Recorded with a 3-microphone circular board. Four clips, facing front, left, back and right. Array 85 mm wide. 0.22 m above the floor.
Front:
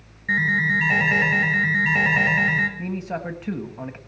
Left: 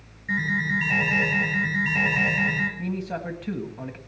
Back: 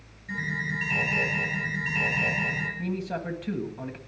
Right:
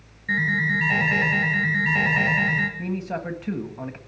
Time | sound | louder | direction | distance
0.3 | an alarm | right 2 dB, front 10 dB | 10° right | 5 m
2.8 | a man speaking | right 1 dB, front 2 dB | 25° right | 1.5 m